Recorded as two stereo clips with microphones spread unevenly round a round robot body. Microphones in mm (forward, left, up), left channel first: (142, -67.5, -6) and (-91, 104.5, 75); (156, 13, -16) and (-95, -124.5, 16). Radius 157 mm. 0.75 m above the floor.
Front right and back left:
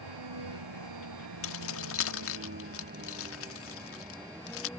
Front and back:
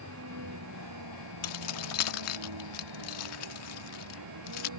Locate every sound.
0.0 s a vehicle: 160° left; by 4.8 s 125° right
1.4 s keys jangling: straight ahead